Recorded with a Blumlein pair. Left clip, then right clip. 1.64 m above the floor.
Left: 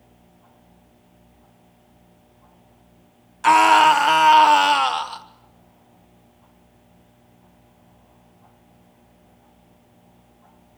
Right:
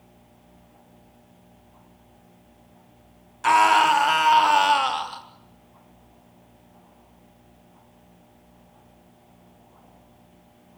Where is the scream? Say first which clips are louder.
Left 4 dB; 10° left, 1.6 m.